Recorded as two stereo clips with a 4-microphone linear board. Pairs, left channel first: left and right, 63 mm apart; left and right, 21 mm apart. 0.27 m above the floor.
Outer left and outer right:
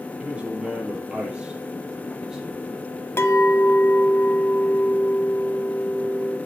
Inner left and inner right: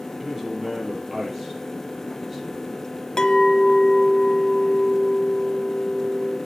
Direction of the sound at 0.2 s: 20° right (ahead or behind).